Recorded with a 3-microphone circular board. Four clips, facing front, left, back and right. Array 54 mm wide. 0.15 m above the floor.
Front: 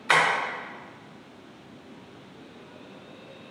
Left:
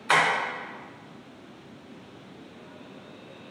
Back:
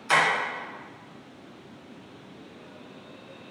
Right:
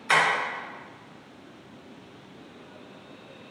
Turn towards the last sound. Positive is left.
turn(degrees=25)